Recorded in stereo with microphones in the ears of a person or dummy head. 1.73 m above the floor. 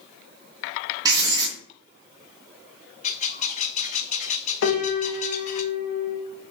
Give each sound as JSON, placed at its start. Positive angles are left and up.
{"t": 1.1, "sound": "writing", "side_deg": -20, "distance_m": 3.5}
{"t": 3.0, "sound": "a bird", "side_deg": 40, "distance_m": 0.9}
{"t": 4.6, "sound": "a piano", "side_deg": 75, "distance_m": 2.0}